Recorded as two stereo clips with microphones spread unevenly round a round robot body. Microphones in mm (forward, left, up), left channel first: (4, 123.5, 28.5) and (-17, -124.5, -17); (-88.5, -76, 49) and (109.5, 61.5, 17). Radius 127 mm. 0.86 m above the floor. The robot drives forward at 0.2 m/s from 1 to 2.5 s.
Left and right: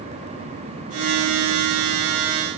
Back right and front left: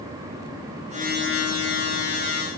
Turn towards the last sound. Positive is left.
No sound to turn to.